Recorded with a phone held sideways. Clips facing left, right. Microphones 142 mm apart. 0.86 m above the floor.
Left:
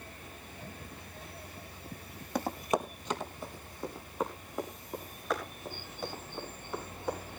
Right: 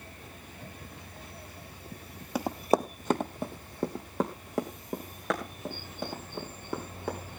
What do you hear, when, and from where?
2.4 s running footsteps: 5° right (ahead or behind), 1.0 m; by 7.2 s 85° right, 7 m